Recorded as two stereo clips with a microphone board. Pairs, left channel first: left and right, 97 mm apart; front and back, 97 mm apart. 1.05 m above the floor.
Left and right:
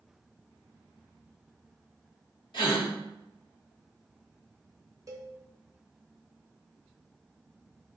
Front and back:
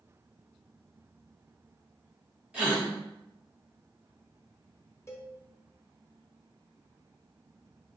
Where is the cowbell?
50° right, 0.6 m.